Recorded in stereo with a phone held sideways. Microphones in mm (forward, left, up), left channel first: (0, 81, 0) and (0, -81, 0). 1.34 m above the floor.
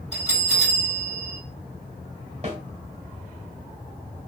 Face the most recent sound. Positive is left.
turn(degrees=-40)  # may be behind; listen again after turning